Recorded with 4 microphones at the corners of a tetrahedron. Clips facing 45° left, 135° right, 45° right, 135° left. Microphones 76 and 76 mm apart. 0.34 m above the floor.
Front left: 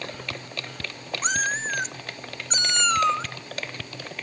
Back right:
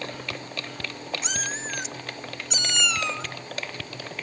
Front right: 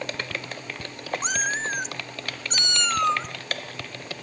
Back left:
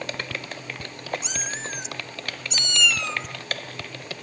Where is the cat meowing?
Straight ahead, 0.8 m.